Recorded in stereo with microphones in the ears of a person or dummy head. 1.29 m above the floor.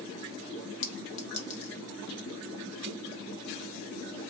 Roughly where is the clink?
Left.